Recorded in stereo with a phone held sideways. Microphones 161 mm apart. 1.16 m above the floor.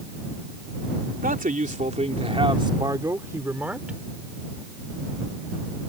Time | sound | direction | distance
1.2 | a man speaking | 60° right (ahead or behind) | ?